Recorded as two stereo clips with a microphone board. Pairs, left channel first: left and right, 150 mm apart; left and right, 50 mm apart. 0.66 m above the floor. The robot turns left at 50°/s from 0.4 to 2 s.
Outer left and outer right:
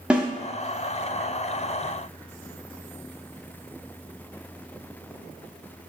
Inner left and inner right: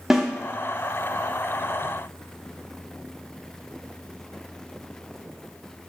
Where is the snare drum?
5° right (ahead or behind), 0.5 m.